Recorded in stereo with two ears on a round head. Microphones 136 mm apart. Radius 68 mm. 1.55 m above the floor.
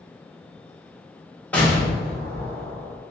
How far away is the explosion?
About 1.0 m.